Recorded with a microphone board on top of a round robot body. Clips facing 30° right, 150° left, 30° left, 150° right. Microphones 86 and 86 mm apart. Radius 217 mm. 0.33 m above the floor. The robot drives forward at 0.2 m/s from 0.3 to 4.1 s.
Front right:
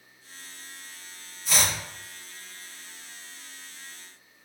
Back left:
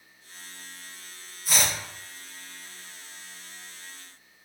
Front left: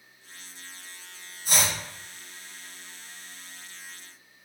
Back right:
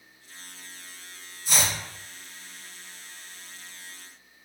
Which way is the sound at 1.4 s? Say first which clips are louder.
Even, even; 70° left.